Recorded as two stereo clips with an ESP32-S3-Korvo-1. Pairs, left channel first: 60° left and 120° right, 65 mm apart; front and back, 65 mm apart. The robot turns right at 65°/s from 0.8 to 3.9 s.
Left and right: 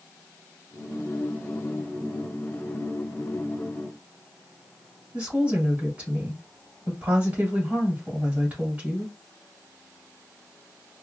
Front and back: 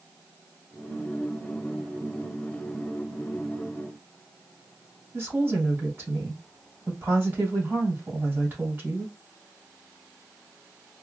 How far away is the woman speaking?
About 1.5 m.